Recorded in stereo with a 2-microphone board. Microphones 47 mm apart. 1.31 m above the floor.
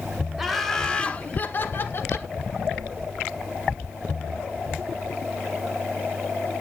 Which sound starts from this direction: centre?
Laughter, at 0.4 s.